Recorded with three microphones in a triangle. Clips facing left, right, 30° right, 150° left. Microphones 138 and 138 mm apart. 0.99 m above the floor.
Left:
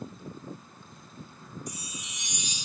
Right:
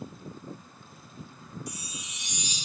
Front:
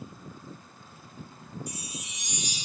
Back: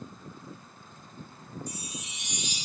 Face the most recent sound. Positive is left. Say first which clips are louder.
# even, even
turn(degrees=50)